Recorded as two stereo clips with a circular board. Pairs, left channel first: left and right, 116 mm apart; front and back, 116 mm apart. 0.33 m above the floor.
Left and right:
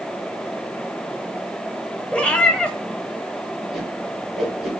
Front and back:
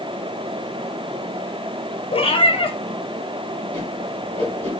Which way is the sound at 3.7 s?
Straight behind.